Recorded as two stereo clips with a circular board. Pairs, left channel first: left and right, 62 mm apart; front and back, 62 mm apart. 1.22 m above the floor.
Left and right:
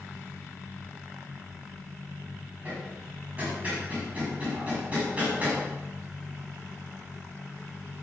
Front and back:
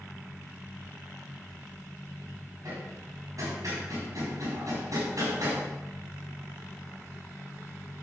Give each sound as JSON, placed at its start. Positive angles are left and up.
{"t": 2.6, "sound": "hammering", "azimuth_deg": -155, "distance_m": 6.5}